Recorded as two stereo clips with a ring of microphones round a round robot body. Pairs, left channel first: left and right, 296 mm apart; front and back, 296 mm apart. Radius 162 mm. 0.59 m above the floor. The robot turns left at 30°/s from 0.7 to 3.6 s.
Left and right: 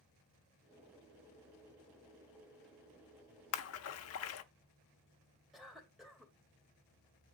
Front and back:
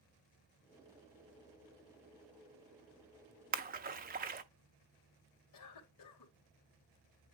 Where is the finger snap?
No finger snap in this recording.